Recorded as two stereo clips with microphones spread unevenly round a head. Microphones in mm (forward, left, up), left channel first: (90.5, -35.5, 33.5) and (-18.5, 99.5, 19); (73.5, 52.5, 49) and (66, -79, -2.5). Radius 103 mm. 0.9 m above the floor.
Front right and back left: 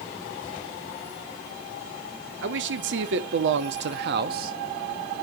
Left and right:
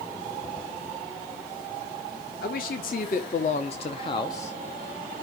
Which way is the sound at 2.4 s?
130° left.